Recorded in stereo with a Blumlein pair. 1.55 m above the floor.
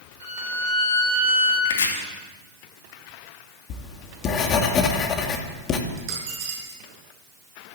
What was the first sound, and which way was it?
A violin, 65° right.